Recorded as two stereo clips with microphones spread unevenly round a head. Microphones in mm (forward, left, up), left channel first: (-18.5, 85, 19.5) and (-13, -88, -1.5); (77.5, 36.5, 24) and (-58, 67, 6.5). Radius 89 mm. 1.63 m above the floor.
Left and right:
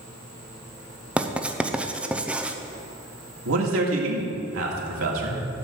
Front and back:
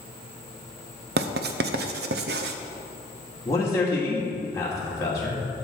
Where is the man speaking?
85° right, 2 m.